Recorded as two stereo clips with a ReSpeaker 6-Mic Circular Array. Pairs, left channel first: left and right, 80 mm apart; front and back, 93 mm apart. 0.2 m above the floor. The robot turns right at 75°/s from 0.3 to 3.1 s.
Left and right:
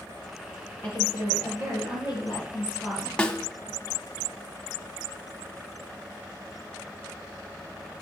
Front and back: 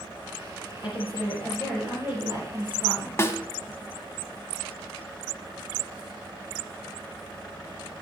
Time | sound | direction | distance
0.8 | a woman speaking | 15° left | 6 m
3.2 | a snare drum | 25° left | 1.1 m